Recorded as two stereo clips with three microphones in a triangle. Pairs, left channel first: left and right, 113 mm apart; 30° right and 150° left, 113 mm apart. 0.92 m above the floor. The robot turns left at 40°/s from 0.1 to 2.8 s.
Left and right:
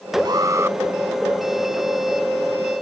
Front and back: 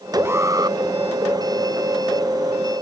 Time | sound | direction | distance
0.2 | an alarm | 140° right | ?